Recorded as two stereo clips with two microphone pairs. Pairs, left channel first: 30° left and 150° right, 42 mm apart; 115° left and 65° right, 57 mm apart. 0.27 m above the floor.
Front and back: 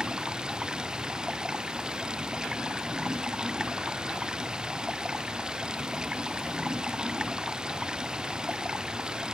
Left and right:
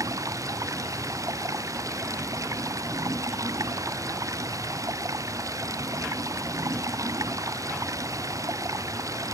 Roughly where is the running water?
Right.